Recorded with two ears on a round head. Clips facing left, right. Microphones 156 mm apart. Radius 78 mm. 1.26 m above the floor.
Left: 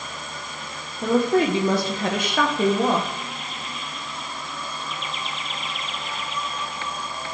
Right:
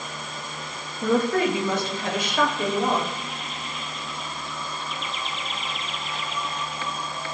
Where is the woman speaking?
5° left (ahead or behind), 1.0 m; by 3.1 s 70° left (ahead or behind), 1.3 m.